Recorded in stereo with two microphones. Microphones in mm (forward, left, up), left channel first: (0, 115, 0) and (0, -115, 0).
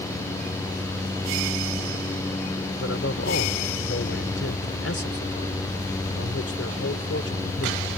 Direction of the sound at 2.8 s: 75° left (ahead or behind).